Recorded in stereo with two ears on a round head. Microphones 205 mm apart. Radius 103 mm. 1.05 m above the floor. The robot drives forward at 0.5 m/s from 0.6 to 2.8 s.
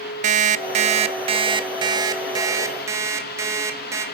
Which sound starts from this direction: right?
An alarm clock, at 0.2 s.